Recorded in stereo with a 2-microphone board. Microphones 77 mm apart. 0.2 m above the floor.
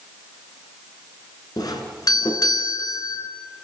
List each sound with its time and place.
1.6 s a doorbell: 55° left (ahead or behind), 3 m